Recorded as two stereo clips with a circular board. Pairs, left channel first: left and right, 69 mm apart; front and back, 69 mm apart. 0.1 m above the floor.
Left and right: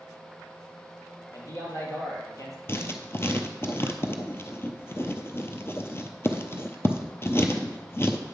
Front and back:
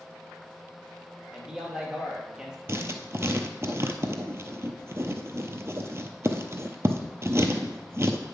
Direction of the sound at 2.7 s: 135° left.